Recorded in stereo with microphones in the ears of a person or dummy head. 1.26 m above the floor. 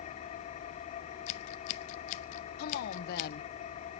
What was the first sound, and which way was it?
An engine running, 40° left (ahead or behind).